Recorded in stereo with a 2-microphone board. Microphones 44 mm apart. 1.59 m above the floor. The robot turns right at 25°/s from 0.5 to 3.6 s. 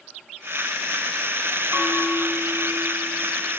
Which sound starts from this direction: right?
A bell, at 1.7 s.